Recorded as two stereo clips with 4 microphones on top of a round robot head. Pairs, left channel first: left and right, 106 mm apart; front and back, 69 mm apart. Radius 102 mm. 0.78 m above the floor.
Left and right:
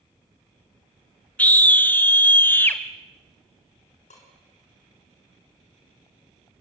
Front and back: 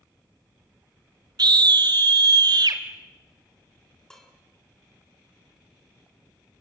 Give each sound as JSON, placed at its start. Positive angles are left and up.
{"t": 1.4, "sound": "a scream", "azimuth_deg": 165, "distance_m": 2.5}
{"t": 4.1, "sound": "dishes clattering", "azimuth_deg": 80, "distance_m": 7.5}